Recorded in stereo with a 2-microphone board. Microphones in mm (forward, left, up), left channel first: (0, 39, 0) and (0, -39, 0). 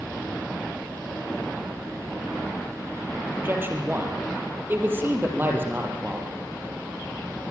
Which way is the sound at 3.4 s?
25° right (ahead or behind).